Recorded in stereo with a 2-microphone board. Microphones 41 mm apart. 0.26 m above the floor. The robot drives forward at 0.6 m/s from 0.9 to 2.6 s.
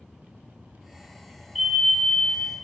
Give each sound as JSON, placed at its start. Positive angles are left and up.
{"t": 1.6, "sound": "a fire alarm", "side_deg": -5, "distance_m": 2.0}